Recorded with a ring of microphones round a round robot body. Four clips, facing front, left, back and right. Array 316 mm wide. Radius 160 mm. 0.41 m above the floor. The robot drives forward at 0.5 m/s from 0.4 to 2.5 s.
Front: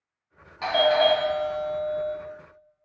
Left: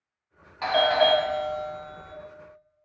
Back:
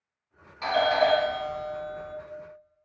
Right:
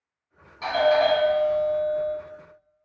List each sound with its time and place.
0.6 s a doorbell: 65° left, 1.3 m; by 2.1 s 120° left, 1.4 m